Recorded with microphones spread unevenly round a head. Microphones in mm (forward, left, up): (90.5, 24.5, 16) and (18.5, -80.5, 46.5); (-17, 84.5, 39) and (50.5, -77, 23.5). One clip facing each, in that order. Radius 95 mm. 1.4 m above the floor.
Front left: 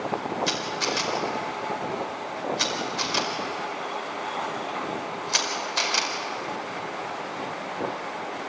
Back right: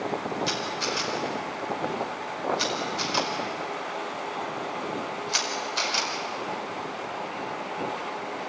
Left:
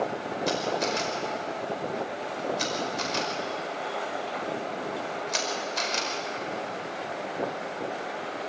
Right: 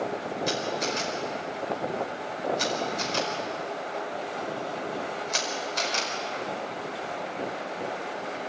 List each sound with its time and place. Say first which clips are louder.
0.5 s a camera shutter: front left 1 dB, left 3 dB; 25° left, 5 m